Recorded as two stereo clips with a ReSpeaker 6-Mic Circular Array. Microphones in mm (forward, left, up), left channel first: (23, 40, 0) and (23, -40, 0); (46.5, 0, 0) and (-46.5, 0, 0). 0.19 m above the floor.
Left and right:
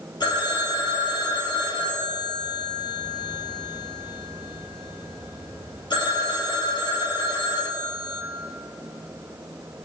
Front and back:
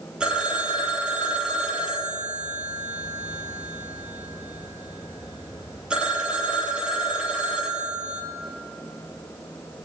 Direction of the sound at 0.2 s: 100° left.